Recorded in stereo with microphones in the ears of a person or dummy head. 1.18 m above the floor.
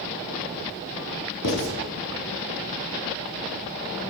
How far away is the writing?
About 3 m.